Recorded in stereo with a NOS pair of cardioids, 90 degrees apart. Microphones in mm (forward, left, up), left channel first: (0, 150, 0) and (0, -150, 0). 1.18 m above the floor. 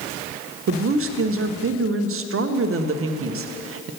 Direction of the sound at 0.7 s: 45° right.